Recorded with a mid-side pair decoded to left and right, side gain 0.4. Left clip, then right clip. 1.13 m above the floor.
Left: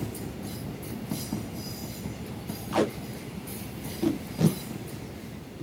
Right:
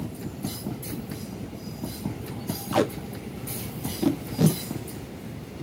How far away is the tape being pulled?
About 0.8 m.